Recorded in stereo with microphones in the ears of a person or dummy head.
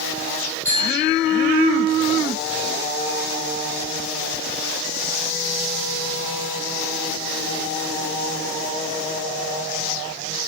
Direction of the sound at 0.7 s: 10° left (ahead or behind).